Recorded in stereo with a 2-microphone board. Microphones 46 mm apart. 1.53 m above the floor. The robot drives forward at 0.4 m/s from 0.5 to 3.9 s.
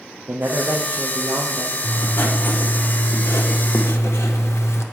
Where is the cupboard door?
No cupboard door in this recording.